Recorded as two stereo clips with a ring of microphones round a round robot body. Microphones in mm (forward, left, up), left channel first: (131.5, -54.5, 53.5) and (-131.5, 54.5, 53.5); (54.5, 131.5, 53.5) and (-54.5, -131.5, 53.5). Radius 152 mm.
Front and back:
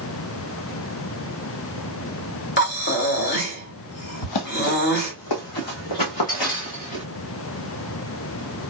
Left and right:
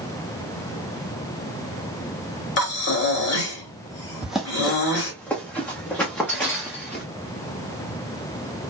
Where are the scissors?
I don't hear scissors.